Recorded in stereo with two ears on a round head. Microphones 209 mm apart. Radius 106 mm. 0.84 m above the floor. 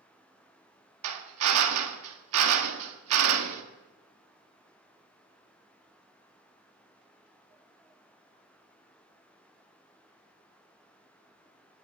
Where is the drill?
70° right (ahead or behind), 1.5 m.